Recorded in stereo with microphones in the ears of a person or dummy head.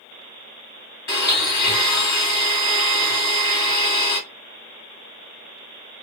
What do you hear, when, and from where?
1.1 s a blender: 20° left (ahead or behind), 1.4 m